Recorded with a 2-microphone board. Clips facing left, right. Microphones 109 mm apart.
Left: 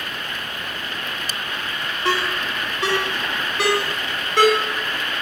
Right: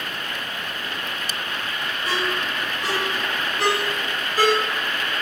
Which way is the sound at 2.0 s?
80° left.